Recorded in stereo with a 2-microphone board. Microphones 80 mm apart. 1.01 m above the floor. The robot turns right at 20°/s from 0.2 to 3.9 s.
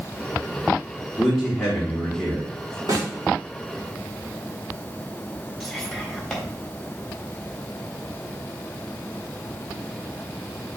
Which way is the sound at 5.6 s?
Centre (ahead or behind).